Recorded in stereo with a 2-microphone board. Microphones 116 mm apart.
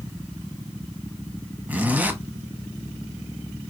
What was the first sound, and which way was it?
A zipper, 15° right (ahead or behind).